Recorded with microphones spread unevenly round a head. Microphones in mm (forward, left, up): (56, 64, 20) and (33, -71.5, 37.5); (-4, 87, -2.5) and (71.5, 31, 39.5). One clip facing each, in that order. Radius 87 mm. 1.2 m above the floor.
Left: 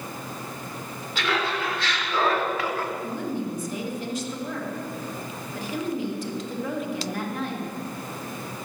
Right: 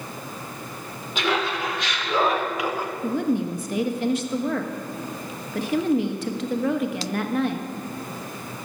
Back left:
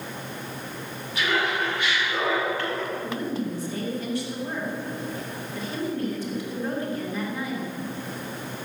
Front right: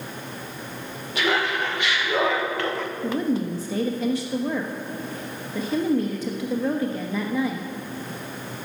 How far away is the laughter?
About 3.5 m.